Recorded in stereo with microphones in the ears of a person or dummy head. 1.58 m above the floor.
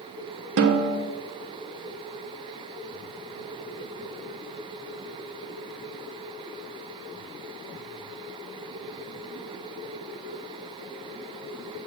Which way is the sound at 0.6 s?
65° right (ahead or behind).